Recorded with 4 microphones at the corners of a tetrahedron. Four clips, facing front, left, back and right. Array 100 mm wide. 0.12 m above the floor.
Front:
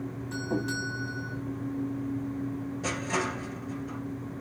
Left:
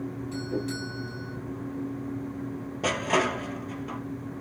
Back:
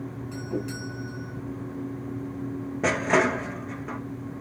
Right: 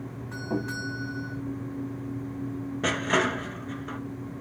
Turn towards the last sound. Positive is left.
turn(degrees=-175)